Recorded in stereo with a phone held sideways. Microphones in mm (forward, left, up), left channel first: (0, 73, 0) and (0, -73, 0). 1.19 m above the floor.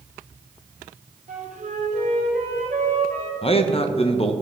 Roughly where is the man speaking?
Left.